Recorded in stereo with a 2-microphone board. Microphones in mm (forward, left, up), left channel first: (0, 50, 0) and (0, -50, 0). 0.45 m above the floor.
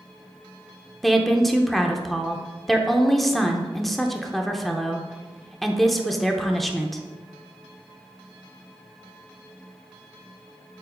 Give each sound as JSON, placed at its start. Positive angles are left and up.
{"t": 1.0, "sound": "a woman speaking", "side_deg": 0, "distance_m": 0.7}